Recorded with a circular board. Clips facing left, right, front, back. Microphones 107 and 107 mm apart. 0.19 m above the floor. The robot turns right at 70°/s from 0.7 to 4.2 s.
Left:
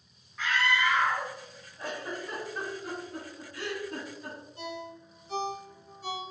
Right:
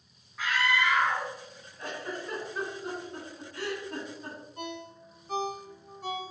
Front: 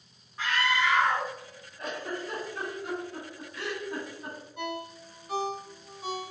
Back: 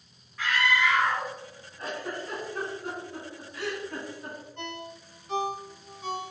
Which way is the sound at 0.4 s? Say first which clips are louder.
Even, back 1 dB; 15° right.